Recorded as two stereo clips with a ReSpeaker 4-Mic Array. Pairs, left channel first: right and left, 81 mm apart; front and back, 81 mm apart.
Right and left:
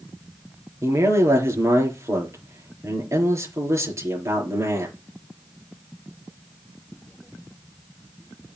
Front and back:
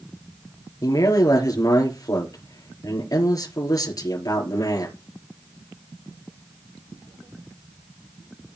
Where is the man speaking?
35° left, 5 m.